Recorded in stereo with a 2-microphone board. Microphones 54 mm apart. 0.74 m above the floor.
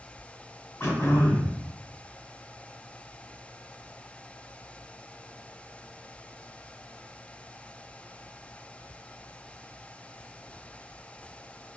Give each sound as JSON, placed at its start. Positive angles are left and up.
{"t": 0.8, "sound": "throat clearing", "side_deg": 40, "distance_m": 2.0}